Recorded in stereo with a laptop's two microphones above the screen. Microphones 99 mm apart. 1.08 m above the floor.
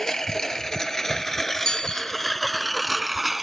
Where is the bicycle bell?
5° left (ahead or behind).